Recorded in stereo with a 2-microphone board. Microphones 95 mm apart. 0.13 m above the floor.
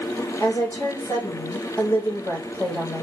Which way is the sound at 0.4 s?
20° left (ahead or behind).